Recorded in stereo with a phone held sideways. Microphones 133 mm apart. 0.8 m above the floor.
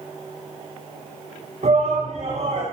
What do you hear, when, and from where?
1.6 s a shout: 60° right (ahead or behind), 8 m